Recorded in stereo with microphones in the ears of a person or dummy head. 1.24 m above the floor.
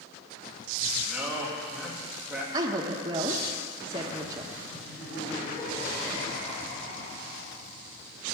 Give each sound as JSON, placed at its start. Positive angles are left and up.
{"t": 1.1, "sound": "a man speaking", "side_deg": -5, "distance_m": 2.5}
{"t": 2.5, "sound": "a woman speaking", "side_deg": -25, "distance_m": 1.2}
{"t": 4.7, "sound": "laughter", "side_deg": 25, "distance_m": 4.5}